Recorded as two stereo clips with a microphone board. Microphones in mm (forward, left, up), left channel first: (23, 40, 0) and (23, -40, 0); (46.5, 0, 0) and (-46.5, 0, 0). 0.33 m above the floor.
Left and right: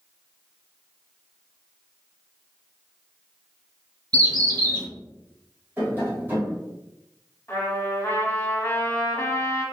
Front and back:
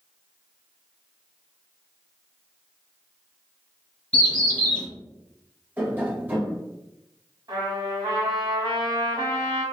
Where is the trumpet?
145° left, 1.2 m.